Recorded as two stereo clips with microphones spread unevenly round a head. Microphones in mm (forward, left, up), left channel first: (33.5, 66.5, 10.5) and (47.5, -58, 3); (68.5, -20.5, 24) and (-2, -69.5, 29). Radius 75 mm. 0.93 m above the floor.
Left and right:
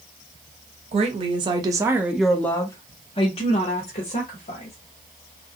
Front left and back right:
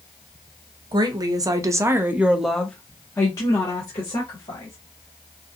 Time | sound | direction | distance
0.9 | a woman speaking | 115° right | 0.9 m